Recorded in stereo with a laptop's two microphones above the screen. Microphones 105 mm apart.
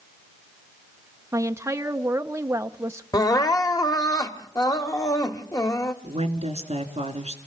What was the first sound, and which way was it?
A woman speaking, 25° right (ahead or behind).